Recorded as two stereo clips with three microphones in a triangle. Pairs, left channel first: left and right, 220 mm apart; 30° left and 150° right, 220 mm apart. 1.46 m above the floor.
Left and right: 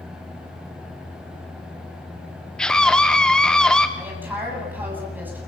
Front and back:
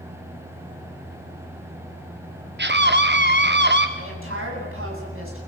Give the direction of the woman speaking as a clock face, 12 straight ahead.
6 o'clock.